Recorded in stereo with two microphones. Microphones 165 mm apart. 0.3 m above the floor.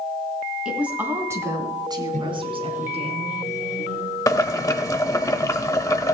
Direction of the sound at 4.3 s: 20° left (ahead or behind).